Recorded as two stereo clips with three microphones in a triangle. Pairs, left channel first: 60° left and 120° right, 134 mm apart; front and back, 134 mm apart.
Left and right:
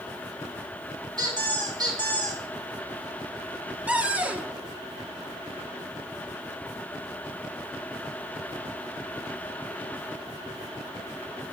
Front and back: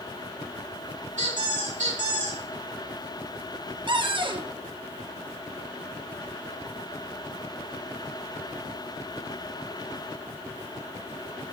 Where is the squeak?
Straight behind, 2.5 m.